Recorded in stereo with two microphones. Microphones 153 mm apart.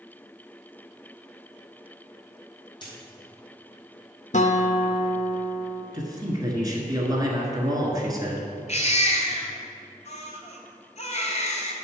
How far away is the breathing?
I don't hear breathing.